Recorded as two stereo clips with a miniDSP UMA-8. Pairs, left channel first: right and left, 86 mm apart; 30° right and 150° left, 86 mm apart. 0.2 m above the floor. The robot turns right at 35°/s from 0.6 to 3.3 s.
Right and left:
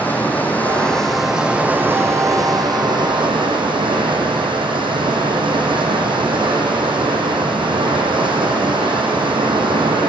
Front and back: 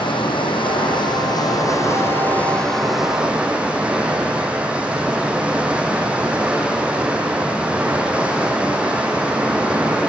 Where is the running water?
20° right, 4 m; by 10.1 s 75° left, 4 m.